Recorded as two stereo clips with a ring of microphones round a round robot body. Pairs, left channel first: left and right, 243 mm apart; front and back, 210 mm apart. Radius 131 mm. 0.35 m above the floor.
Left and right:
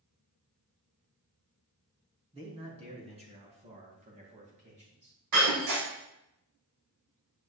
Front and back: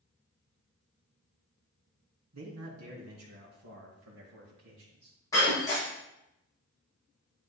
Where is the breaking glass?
80° right, 6.5 m.